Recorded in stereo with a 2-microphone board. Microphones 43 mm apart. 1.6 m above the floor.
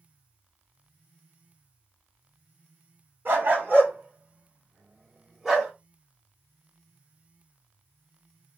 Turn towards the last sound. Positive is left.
turn(degrees=0)  # may be behind; listen again after turning